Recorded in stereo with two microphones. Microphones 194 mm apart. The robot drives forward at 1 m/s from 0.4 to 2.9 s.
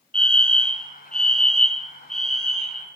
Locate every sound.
0.1 s a fire alarm: 5° left (ahead or behind), 2.5 m